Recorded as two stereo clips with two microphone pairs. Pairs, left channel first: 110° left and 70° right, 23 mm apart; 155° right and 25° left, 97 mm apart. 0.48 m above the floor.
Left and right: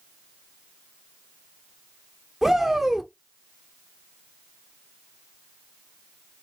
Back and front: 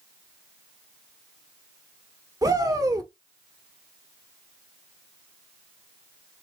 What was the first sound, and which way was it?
A shout, 10° left.